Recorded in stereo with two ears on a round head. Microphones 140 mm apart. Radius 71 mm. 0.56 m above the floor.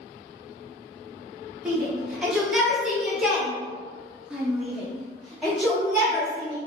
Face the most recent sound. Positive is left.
turn(degrees=0)  # may be behind; listen again after turning